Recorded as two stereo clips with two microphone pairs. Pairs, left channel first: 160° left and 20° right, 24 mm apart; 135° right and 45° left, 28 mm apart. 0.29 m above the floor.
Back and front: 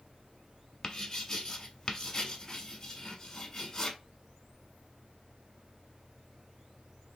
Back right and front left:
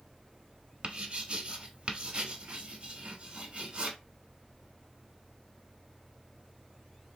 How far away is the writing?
About 0.6 m.